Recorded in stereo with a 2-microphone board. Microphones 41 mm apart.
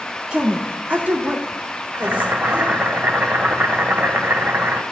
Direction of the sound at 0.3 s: 20° right (ahead or behind).